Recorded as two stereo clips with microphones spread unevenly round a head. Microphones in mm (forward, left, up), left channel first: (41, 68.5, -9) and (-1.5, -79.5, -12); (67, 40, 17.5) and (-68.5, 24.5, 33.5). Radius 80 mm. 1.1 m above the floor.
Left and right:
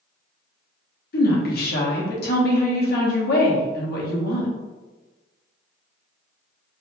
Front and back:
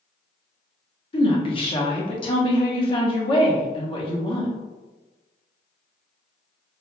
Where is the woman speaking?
55° left, 1.0 m.